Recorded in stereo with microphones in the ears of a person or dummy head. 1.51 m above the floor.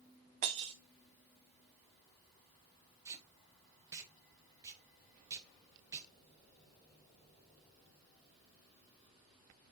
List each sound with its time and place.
0.4 s breaking glass: 25° right (ahead or behind), 0.8 m
3.0 s tape being pulled: 20° right (ahead or behind), 1.3 m